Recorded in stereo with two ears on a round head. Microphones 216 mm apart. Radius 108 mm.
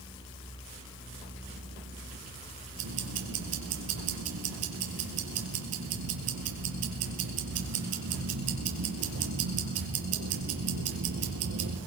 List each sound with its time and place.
2.8 s ticking: 70° right (ahead or behind), 2.5 m